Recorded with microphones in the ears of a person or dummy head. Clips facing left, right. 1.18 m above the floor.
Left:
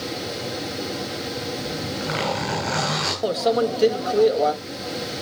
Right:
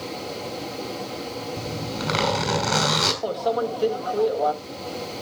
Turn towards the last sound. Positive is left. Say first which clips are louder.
# left 5 dB
turn(degrees=30)  # may be behind; listen again after turning